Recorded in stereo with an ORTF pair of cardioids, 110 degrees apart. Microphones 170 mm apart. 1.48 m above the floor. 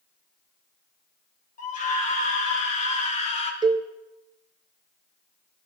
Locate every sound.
1.6 s a scream: 50° left, 5 m; by 3.5 s 40° left, 3 m
3.6 s a cowbell: 25° right, 1.1 m